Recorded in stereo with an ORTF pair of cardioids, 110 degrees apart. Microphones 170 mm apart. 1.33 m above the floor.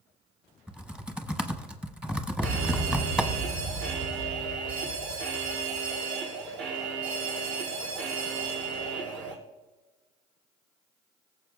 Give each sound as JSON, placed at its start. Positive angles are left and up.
{"t": 0.7, "sound": "typing on a keyboard", "azimuth_deg": -5, "distance_m": 0.9}
{"t": 2.4, "sound": "a fire alarm", "azimuth_deg": -70, "distance_m": 5.5}